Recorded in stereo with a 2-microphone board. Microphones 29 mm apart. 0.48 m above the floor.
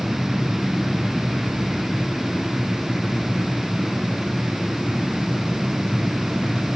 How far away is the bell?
I don't hear a bell.